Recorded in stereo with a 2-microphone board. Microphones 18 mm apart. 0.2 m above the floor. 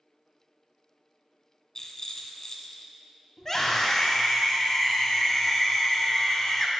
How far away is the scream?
About 1.2 m.